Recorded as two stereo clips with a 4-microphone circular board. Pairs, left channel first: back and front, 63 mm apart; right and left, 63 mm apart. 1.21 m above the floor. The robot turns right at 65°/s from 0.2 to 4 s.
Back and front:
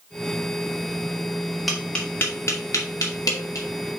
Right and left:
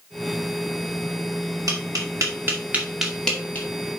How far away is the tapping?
About 2 m.